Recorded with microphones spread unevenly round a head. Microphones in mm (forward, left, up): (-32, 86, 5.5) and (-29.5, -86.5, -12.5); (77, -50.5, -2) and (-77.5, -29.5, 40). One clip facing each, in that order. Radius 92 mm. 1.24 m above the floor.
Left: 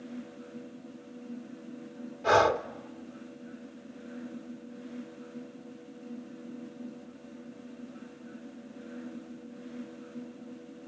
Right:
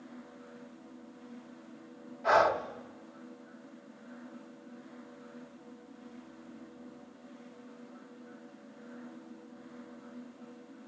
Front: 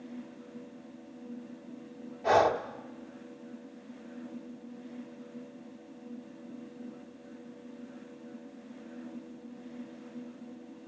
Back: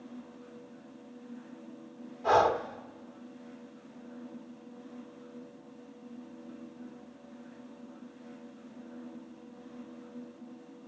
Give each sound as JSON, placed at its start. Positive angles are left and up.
{"t": 2.2, "sound": "breathing", "azimuth_deg": 85, "distance_m": 0.8}